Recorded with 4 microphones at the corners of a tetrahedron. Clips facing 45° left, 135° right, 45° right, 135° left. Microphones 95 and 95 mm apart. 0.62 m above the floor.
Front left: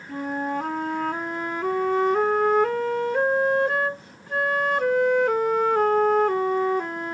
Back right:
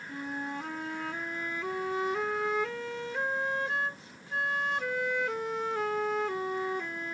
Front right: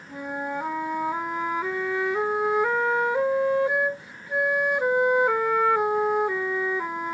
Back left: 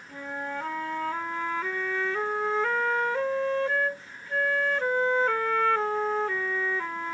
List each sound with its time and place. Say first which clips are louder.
0.1 s a flute: front left 10 dB, front right 4 dB; 30° left